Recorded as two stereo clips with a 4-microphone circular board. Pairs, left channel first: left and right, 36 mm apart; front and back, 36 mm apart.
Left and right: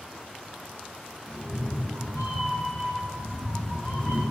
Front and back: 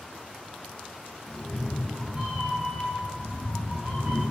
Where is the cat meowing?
80° right, 0.9 m; by 4.2 s 140° right, 1.8 m.